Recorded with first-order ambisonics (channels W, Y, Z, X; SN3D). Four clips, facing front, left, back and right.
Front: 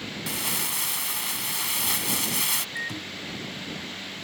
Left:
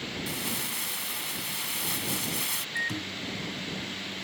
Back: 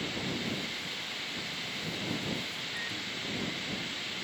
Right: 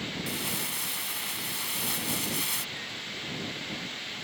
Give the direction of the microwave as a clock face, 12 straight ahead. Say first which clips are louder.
Left 5 dB, front 3 dB; 10 o'clock.